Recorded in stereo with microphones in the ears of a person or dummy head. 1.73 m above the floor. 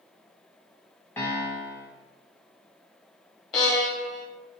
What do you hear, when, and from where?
1.2 s a piano: 10° left (ahead or behind), 0.8 m
3.5 s a violin: 25° left (ahead or behind), 1.1 m